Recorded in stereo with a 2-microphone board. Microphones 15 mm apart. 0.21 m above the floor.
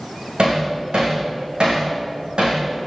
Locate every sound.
0.4 s hammering: 85° right, 10 m